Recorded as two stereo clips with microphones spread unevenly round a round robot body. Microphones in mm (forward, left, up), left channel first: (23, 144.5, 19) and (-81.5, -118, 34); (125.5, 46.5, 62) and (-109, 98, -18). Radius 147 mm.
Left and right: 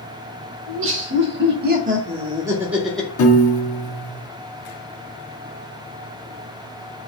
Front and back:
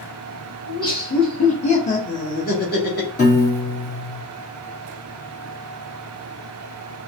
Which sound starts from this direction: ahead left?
A piano, at 3.2 s.